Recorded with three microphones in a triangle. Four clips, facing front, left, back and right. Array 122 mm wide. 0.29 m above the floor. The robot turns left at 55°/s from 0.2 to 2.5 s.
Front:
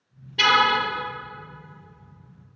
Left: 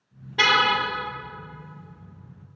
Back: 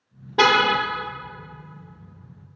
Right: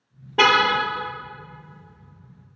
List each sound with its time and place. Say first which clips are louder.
0.4 s a car horn: right 3 dB, back 2 dB; 145° right, 3.5 m; by 0.8 s 165° right, 3.5 m